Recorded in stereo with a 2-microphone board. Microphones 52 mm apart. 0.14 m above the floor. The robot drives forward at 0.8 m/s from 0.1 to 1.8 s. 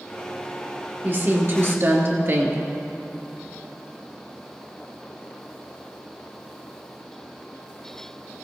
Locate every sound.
1.0 s a woman speaking: 40° right (ahead or behind), 3 m; by 2.6 s 50° right (ahead or behind), 2.5 m